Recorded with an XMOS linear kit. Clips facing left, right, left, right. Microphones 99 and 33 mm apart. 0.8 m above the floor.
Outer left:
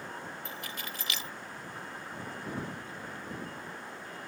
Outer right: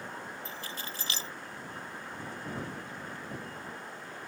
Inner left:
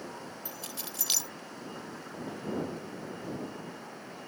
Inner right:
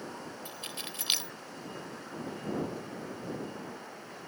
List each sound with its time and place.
0.5 s keys jangling: 35° right (ahead or behind)